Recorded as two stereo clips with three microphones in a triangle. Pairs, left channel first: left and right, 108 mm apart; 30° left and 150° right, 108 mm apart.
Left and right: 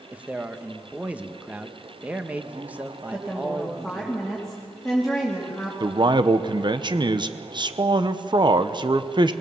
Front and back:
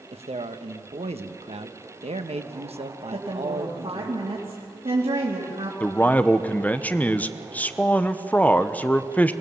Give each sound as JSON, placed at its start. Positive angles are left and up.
{"t": 0.1, "sound": "a man speaking", "azimuth_deg": -165, "distance_m": 1.2}
{"t": 3.1, "sound": "a woman speaking", "azimuth_deg": 180, "distance_m": 3.0}
{"t": 5.8, "sound": "a man speaking", "azimuth_deg": -45, "distance_m": 0.9}